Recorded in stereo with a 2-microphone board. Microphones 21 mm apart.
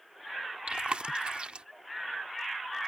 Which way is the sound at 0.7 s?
80° right.